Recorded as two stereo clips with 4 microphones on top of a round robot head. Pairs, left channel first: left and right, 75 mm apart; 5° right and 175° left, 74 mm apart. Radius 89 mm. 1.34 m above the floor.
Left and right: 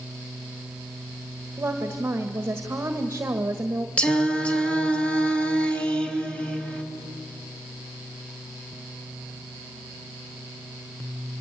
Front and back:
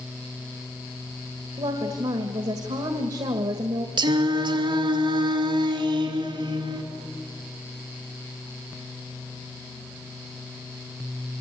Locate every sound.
1.6 s a woman speaking: 155° right, 1.5 m
4.0 s singing: 165° left, 2.5 m